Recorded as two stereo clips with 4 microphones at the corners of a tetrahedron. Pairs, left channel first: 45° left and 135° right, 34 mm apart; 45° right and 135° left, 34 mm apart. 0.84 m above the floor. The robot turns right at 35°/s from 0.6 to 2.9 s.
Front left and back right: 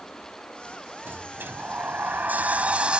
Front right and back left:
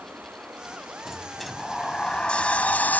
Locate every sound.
0.0 s running water: 115° left; by 3.0 s 165° right
1.1 s a sliding door: 145° right; by 3.0 s 80° right